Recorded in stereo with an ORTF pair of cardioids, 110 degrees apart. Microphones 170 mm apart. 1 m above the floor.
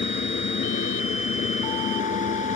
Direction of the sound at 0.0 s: 45° left.